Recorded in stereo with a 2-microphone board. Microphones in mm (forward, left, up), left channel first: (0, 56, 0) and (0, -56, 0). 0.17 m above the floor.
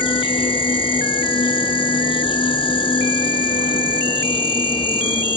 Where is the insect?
45° left (ahead or behind), 2.5 m.